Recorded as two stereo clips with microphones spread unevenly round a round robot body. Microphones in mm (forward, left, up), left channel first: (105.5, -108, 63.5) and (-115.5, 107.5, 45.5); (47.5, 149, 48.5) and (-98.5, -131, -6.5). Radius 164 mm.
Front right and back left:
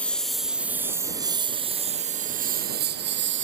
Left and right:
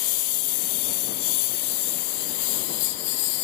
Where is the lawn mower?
40° left; by 3.4 s 80° left.